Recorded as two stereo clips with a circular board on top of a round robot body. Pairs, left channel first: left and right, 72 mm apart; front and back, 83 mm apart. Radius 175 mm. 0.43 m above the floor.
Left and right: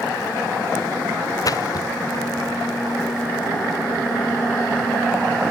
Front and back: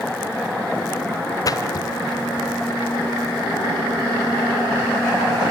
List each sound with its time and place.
1.4 s a splash: 50° left, 0.6 m